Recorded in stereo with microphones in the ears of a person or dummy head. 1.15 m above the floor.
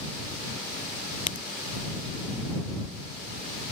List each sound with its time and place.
1.3 s a crack: 40° left (ahead or behind)